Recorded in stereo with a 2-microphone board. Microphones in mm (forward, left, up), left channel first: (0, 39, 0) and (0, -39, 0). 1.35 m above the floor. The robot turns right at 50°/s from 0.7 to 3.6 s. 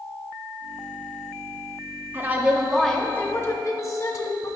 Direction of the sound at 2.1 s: 30° right.